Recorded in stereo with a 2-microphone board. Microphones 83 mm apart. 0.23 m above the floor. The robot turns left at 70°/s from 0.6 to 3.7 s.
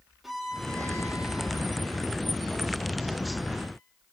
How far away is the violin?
About 4.5 m.